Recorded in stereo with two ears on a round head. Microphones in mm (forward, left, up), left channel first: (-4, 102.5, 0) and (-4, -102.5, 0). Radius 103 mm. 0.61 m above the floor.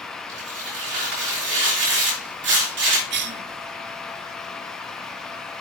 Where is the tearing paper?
55° right (ahead or behind), 5.5 m.